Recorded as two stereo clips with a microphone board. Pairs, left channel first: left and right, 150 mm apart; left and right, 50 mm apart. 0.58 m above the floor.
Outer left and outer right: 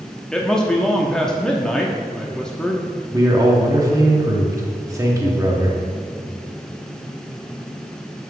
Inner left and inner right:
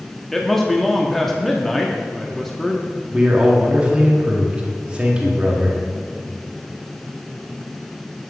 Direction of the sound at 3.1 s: 20° right (ahead or behind).